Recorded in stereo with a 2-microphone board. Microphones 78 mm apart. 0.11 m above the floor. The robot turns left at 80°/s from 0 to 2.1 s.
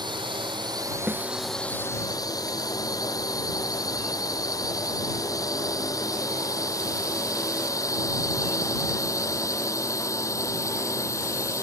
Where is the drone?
60° right (ahead or behind); by 11.6 s 40° left (ahead or behind).